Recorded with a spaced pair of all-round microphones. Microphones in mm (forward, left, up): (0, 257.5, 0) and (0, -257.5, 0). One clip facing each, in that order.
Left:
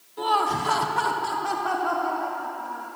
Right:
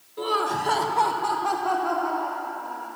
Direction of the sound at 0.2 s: 10° left (ahead or behind).